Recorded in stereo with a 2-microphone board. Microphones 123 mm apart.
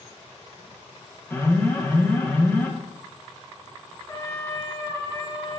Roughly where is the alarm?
Centre.